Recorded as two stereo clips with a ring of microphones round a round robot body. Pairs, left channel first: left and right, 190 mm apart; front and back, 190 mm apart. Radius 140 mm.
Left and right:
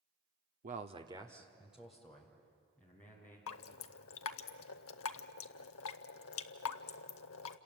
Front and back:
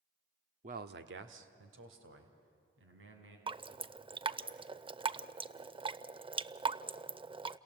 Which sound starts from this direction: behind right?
A man speaking, at 0.6 s.